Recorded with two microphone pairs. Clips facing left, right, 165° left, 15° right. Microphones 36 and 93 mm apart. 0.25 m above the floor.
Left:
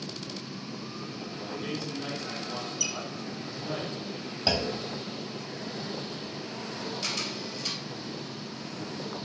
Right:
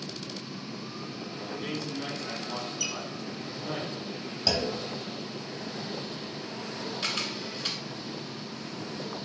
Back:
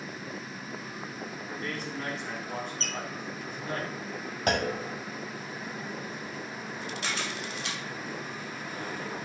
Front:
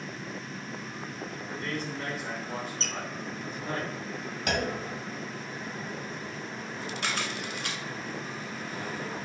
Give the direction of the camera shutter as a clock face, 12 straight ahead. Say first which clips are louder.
Right 4 dB, front 2 dB; 1 o'clock.